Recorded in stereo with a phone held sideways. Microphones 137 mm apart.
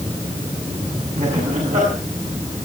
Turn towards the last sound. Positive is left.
turn(degrees=-60)  # may be behind; listen again after turning